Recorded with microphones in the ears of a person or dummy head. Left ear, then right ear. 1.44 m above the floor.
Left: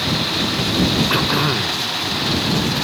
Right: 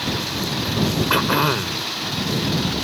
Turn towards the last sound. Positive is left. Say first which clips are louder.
# left 1 dB
turn(degrees=-30)  # may be behind; listen again after turning